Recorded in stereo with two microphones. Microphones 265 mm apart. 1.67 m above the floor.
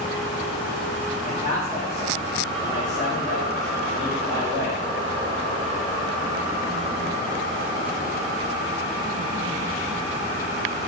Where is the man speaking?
20° left (ahead or behind), 5 m.